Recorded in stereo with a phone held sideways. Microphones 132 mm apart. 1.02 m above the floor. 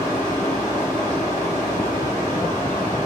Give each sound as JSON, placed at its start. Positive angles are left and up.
{"t": 0.0, "sound": "a fan", "side_deg": 85, "distance_m": 1.6}